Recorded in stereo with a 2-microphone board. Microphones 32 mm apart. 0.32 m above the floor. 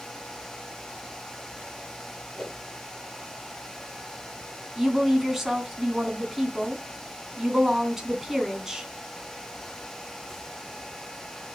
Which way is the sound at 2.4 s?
5° left (ahead or behind).